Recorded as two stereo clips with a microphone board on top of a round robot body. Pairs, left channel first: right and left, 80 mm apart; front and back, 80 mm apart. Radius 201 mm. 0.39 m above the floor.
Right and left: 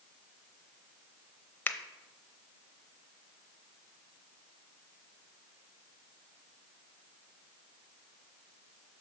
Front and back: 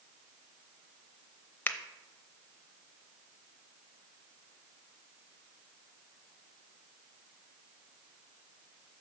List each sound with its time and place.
1.7 s a finger snap: 45° right, 0.9 m